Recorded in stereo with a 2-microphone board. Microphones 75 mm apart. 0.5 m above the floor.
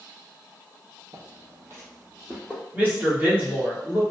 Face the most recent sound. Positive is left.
turn(degrees=-25)  # may be behind; listen again after turning